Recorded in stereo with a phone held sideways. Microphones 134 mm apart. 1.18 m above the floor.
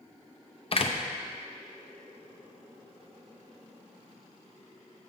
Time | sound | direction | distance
0.7 | a door slam | 45° left (ahead or behind) | 0.5 m